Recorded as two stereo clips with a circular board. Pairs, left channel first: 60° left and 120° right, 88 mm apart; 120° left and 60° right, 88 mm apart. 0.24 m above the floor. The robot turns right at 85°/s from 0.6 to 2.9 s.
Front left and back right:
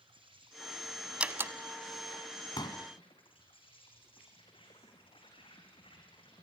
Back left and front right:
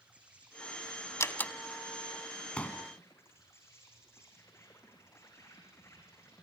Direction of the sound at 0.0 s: 135° right.